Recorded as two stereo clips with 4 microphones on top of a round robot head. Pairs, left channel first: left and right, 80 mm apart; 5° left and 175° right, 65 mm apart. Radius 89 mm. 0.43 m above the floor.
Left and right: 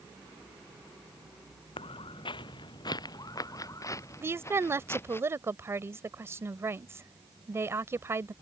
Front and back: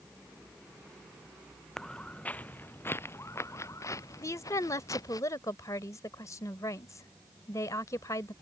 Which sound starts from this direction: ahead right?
A woman speaking, at 4.2 s.